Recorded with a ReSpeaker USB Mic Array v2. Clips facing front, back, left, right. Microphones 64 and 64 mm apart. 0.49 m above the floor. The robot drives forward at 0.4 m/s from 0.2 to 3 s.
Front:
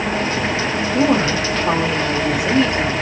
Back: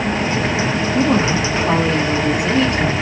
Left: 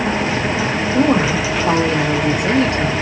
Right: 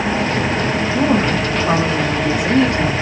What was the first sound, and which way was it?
A woman speaking, 65° left.